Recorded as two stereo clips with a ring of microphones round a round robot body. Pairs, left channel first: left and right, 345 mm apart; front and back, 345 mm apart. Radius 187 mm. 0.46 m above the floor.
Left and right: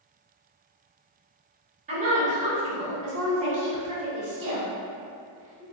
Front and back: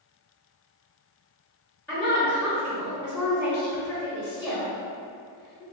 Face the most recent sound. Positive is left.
turn(degrees=-75)